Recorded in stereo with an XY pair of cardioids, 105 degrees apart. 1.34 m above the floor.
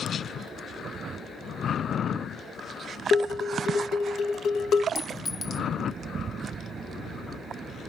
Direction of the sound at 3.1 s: 60° left.